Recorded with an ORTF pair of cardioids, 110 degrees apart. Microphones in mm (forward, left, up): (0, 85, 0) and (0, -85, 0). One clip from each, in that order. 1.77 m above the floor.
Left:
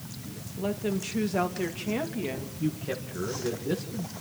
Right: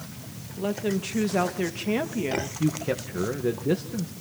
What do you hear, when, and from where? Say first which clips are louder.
0.6 s a woman speaking: right 3 dB; 10° right, 1.7 m; by 2.5 s 30° right, 2.5 m
2.6 s a man speaking: right 5 dB; 35° right, 1.9 m